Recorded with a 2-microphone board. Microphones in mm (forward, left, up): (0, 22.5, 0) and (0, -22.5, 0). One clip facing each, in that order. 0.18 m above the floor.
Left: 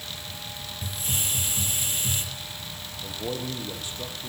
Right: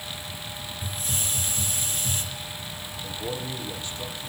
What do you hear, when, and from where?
0.8 s a hiss: 30° left (ahead or behind), 6 m
3.0 s a man speaking: 15° left (ahead or behind), 7 m